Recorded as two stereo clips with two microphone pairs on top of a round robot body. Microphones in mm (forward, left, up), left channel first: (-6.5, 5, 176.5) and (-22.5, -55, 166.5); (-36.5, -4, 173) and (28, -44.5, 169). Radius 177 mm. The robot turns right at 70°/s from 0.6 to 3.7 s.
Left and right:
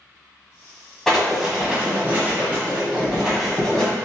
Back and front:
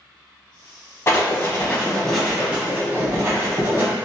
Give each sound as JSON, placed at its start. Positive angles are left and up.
{"t": 1.1, "sound": "writing", "azimuth_deg": 170, "distance_m": 1.4}